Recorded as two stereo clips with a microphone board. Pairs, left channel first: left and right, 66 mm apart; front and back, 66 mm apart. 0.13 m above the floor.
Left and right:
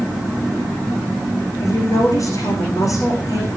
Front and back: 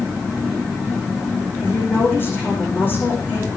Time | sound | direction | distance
1.6 | a woman speaking | 55° left | 8 m